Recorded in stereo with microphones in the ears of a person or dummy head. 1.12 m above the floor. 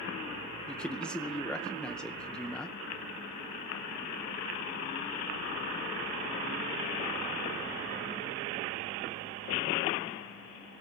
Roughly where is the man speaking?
Centre.